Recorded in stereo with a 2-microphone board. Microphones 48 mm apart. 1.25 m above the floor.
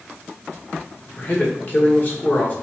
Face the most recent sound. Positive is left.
turn(degrees=35)  # may be behind; listen again after turning